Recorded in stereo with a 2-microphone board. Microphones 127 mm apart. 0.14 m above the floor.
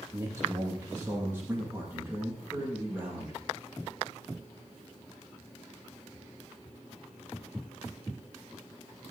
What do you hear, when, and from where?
0.1 s a man speaking: 20° right (ahead or behind), 7 m; by 3.4 s 10° right (ahead or behind), 9 m